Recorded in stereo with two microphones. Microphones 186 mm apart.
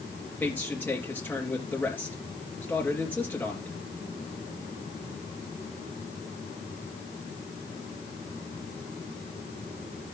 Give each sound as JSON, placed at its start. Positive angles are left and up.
{"t": 0.4, "sound": "a man speaking", "side_deg": 10, "distance_m": 3.0}